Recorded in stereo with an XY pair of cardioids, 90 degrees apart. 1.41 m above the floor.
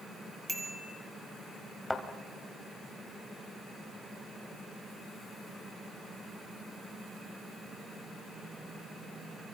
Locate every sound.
0.5 s a bicycle bell: 15° right, 3 m
1.9 s a thud: 10° left, 3 m